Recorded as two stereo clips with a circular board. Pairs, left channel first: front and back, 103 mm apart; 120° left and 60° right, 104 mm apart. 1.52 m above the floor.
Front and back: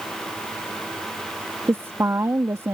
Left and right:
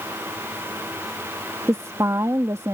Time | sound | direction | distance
1.7 | a woman speaking | 120° right | ?